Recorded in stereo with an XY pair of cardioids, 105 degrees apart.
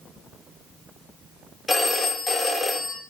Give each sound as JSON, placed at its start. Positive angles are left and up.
{"t": 1.7, "sound": "a phone ringing", "azimuth_deg": 20, "distance_m": 2.0}